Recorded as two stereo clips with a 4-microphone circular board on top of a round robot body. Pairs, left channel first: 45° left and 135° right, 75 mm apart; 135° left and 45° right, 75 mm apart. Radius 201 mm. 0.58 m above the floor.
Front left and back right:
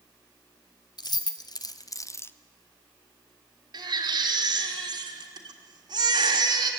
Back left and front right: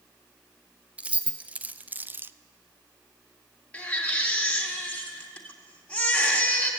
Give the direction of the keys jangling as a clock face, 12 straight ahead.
11 o'clock.